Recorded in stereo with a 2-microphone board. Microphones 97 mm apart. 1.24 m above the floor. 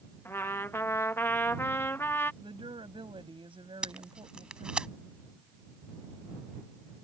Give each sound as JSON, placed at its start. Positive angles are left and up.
{"t": 0.2, "sound": "a trumpet", "side_deg": 25}
{"t": 2.4, "sound": "a woman speaking", "side_deg": -65}
{"t": 3.8, "sound": "tape being pulled", "side_deg": -10}